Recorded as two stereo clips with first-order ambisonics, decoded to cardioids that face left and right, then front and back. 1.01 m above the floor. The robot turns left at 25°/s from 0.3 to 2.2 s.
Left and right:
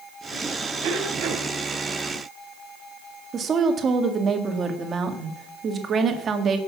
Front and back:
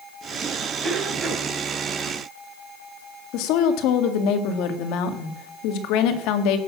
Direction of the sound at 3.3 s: 25° right.